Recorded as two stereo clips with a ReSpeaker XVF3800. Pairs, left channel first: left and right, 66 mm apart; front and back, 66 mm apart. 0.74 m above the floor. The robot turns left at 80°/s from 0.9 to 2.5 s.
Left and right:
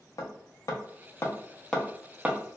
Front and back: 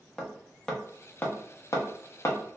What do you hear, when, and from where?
0.2 s hammering: 80° left, 0.7 m; by 2.4 s 35° right, 0.7 m